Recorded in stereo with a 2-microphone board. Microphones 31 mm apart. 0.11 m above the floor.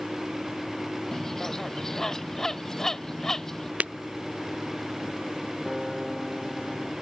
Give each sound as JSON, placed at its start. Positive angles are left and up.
{"t": 1.1, "sound": "a bird", "side_deg": 15}
{"t": 3.8, "sound": "breaking glass", "side_deg": -50}
{"t": 5.7, "sound": "a guitar", "side_deg": -15}